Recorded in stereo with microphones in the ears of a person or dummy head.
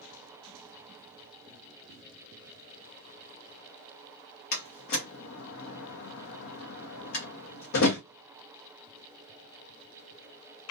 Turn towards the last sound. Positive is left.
turn(degrees=65)  # may be behind; listen again after turning